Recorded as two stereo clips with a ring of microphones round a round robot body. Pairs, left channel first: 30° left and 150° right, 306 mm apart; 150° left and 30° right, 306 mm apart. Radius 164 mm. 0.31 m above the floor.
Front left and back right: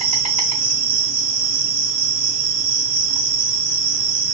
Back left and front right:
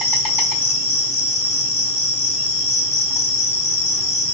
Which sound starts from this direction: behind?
An insect, at 0.0 s.